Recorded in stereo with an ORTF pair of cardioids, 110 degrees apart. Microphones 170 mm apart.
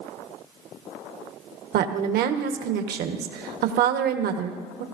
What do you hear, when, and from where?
1.7 s a woman speaking: 70° right, 1.3 m